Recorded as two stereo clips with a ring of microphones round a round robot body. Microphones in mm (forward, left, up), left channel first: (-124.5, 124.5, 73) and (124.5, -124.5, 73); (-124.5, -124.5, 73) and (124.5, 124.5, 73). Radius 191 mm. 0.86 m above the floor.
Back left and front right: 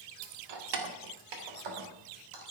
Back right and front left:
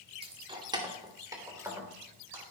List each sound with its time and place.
0.2 s keys jangling: 30° right, 1.5 m; by 2.4 s 40° right, 3 m